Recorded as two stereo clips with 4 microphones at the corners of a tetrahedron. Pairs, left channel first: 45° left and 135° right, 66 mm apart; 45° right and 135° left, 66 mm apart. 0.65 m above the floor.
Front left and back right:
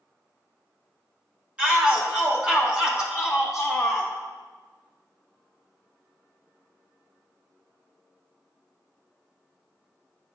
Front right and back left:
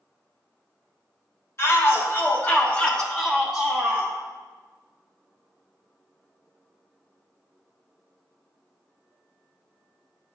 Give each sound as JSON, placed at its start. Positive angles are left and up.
{"t": 1.6, "sound": "a shout", "azimuth_deg": -70, "distance_m": 1.6}